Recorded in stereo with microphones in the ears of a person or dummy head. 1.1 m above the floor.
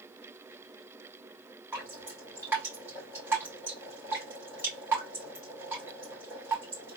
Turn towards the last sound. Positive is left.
turn(degrees=-10)  # may be behind; listen again after turning